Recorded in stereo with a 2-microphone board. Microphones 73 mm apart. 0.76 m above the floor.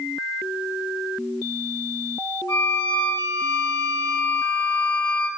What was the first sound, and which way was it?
A violin, 80° left.